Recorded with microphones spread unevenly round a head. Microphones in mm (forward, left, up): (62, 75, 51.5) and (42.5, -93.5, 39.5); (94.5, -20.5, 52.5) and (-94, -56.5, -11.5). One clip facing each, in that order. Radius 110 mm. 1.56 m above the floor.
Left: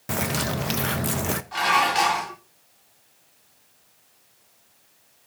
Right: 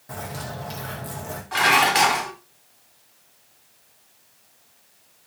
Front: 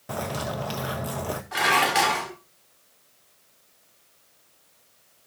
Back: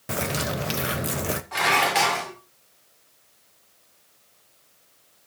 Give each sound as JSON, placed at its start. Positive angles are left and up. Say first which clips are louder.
{"t": 0.1, "sound": "a bird", "louder": "left 7 dB, back 2 dB", "azimuth_deg": 120, "distance_m": 0.6}
{"t": 1.5, "sound": "dishes clattering", "louder": "right 4 dB, front 1 dB", "azimuth_deg": -70, "distance_m": 3.5}